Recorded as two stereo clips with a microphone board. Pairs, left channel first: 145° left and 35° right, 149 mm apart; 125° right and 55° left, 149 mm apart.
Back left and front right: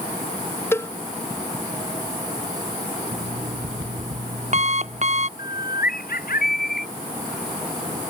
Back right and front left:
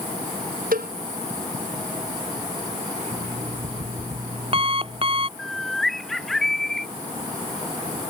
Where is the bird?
145° left.